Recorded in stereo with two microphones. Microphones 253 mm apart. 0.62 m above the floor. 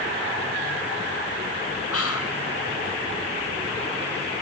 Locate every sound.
1.9 s whispering: 65° left (ahead or behind), 4 m